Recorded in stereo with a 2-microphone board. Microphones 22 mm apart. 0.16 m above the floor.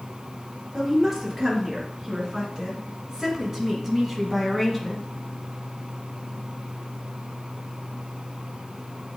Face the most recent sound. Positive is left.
turn(degrees=-5)  # may be behind; listen again after turning